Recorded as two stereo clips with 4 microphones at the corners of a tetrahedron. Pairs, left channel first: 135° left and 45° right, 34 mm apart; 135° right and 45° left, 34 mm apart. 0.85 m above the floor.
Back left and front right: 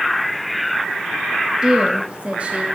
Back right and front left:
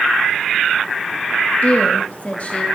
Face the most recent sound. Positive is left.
turn(degrees=-90)